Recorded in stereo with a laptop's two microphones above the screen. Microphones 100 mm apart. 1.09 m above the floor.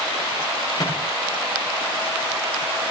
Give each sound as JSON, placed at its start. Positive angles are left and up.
{"t": 0.8, "sound": "a microwave", "side_deg": 45, "distance_m": 8.5}